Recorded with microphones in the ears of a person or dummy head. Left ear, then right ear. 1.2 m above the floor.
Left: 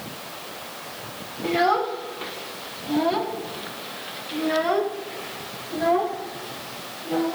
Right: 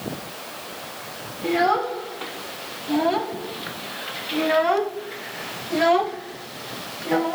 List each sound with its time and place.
1.4 s a child speaking: centre (ahead or behind), 3 m; by 7.3 s 60° right (ahead or behind), 1.4 m